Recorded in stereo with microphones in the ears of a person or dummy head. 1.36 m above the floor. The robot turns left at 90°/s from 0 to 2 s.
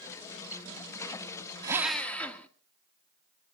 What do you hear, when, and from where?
1.6 s a drill: 155° right, 1.2 m; by 2.5 s 175° left, 1.2 m